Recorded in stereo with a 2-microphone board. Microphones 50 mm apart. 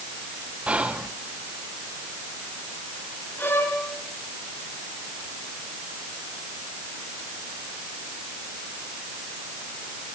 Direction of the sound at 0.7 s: 25° right (ahead or behind).